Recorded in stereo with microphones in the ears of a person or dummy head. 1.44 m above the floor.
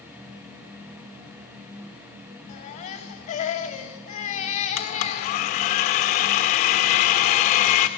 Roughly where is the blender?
Left.